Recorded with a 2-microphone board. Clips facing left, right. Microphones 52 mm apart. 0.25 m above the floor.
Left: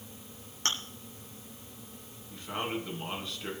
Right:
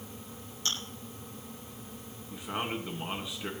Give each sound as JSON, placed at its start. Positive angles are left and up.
{"t": 0.7, "sound": "chewing", "side_deg": 55, "distance_m": 2.5}
{"t": 2.3, "sound": "a man speaking", "side_deg": -15, "distance_m": 2.5}